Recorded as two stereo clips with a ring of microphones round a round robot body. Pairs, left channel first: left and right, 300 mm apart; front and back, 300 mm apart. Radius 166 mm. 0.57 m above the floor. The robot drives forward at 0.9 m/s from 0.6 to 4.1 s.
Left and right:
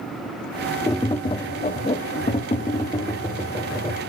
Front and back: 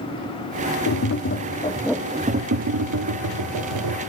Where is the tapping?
15° left, 1.2 m; by 4.0 s 170° left, 2 m.